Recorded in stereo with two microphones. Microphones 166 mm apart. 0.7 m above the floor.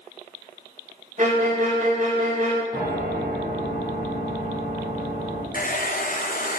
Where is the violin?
45° right (ahead or behind), 1.2 m.